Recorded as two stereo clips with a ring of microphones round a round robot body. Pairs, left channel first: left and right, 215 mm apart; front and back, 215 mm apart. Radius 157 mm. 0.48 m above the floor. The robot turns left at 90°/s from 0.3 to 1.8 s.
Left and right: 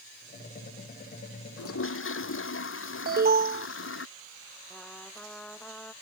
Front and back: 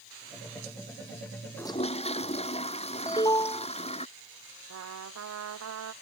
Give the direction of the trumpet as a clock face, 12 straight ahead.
6 o'clock.